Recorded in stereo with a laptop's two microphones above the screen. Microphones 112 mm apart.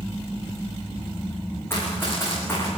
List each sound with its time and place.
1.7 s running footsteps: 20° left (ahead or behind), 6 m